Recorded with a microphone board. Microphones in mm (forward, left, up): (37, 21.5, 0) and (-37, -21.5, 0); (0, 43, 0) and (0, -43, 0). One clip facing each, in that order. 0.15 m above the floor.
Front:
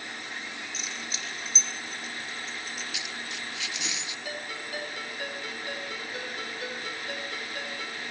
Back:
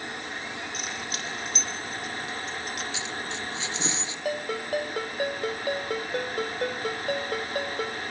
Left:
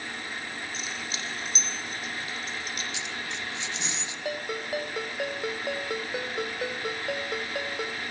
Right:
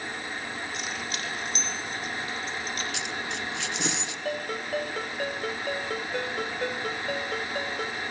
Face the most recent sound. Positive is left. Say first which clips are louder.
# back 11 dB, right 1 dB
turn(degrees=175)